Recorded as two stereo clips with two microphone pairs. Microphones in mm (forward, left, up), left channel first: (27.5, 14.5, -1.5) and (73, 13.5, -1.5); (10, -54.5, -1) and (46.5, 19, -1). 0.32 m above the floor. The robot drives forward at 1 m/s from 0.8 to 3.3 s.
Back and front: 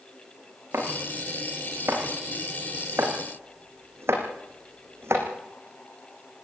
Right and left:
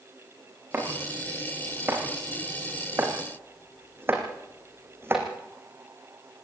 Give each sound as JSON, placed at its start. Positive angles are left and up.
{"t": 0.7, "sound": "chopping", "azimuth_deg": 5, "distance_m": 8.0}